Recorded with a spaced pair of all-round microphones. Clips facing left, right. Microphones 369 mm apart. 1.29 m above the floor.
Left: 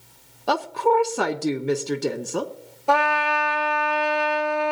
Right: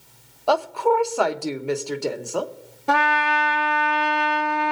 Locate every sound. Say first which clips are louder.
0.5 s a woman speaking: right 1 dB; 30° left (ahead or behind), 0.9 m
2.9 s a trumpet: left 1 dB; 30° right (ahead or behind), 0.8 m